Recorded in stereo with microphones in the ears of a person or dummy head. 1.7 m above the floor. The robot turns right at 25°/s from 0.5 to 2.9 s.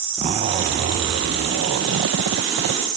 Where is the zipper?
150° right; by 2.8 s 90° right.